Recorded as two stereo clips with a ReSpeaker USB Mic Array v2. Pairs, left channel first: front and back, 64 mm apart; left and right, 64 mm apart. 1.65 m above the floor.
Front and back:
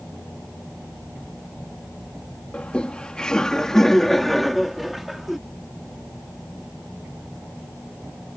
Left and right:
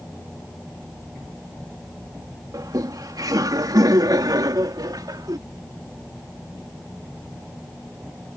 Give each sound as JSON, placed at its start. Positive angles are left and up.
{"t": 2.5, "sound": "laughter", "azimuth_deg": -70}